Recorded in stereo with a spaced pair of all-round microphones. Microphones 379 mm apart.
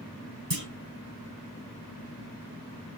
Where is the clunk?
65° right (ahead or behind), 3 m.